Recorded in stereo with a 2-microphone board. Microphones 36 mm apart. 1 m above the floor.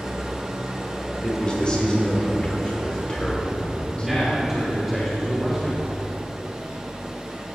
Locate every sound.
0.0 s an engine running: 15° right (ahead or behind), 1.2 m
1.2 s a man speaking: 20° left (ahead or behind), 2.5 m
4.0 s a man speaking: 5° right (ahead or behind), 3 m